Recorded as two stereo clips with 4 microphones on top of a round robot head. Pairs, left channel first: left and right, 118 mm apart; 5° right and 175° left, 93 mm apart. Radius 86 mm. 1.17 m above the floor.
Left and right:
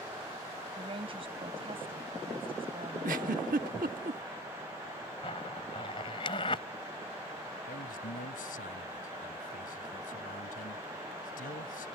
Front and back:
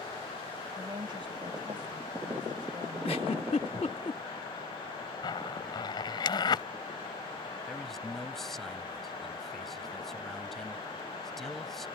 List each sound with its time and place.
0.8 s a woman speaking: 135° right
3.0 s a giggle: 60° right
5.2 s a zipper: 30° left
7.7 s a man speaking: 80° left